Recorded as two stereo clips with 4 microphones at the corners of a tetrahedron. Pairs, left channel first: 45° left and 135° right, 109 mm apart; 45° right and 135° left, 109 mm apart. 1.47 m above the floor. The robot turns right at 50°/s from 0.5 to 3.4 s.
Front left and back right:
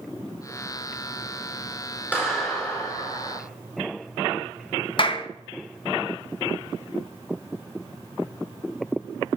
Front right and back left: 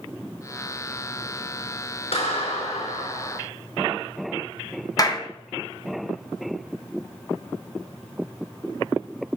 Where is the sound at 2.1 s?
60° right, 4.5 m; by 3.4 s 5° left, 4.5 m.